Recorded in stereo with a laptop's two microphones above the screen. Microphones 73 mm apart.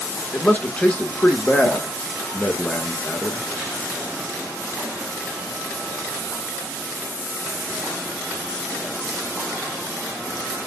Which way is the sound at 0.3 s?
20° left (ahead or behind).